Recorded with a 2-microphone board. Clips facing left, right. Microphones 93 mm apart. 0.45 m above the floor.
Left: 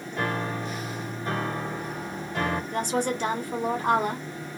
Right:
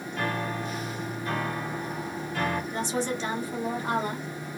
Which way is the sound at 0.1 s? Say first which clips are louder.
Left 2 dB; 20° left (ahead or behind).